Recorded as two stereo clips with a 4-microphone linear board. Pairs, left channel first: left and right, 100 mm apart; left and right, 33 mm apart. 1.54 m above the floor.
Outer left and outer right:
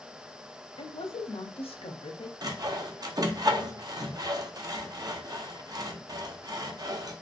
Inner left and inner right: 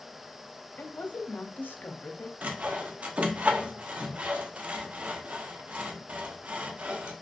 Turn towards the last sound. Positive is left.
turn(degrees=-40)  # may be behind; listen again after turning